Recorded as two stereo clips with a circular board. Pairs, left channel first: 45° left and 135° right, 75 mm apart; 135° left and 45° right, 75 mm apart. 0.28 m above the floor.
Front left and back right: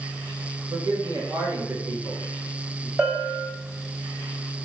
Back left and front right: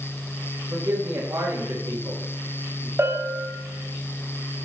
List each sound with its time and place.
0.7 s a man speaking: 95° right, 2.5 m; by 2.9 s 50° right, 2 m
3.0 s a bell: 75° right, 1.7 m